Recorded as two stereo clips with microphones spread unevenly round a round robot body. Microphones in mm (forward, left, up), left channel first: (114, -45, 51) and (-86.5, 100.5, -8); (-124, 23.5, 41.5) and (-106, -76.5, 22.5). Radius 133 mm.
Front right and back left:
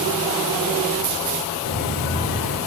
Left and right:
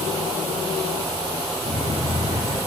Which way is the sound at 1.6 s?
65° right.